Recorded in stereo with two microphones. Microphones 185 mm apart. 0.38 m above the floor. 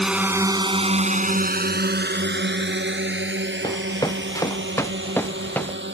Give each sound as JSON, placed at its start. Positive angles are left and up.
{"t": 0.0, "sound": "a drone", "side_deg": -5}
{"t": 3.6, "sound": "running footsteps", "side_deg": 20}